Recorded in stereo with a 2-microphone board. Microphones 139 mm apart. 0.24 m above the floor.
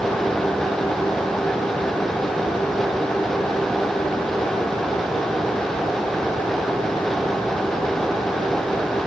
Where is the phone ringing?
I don't hear a phone ringing.